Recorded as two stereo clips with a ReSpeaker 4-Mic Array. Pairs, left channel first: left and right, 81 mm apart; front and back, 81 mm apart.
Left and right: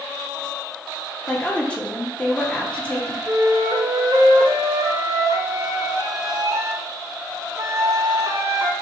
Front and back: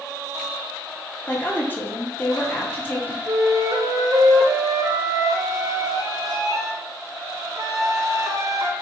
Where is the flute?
135° right, 0.6 m.